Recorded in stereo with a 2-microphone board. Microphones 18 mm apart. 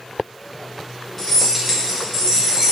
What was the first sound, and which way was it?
Keys jangling, 10° left (ahead or behind).